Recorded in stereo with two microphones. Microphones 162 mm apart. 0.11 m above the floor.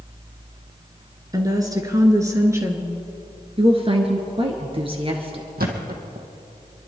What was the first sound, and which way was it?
A woman speaking, 25° right (ahead or behind).